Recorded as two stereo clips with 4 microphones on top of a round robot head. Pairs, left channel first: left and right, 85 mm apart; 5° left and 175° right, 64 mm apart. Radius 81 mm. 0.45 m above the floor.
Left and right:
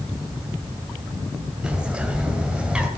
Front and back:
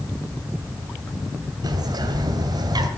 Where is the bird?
170° right, 2 m.